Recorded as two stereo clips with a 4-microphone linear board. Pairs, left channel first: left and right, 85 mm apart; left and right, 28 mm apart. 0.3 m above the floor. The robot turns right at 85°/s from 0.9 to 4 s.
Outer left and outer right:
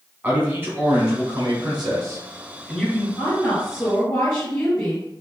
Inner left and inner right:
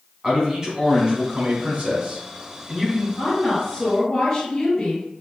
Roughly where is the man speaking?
Behind right.